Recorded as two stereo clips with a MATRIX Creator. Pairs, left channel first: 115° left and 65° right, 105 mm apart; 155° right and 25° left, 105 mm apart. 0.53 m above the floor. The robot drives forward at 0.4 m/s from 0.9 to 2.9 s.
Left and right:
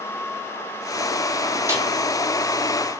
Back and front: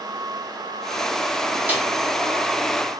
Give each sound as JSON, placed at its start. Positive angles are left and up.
{"t": 1.7, "sound": "a snare drum", "azimuth_deg": -35, "distance_m": 0.7}